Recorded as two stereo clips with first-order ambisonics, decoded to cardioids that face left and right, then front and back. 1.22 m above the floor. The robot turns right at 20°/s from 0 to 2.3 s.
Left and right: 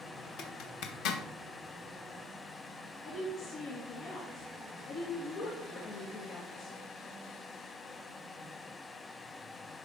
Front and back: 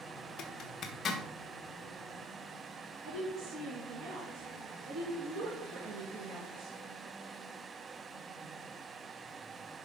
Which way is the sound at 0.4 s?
45° left.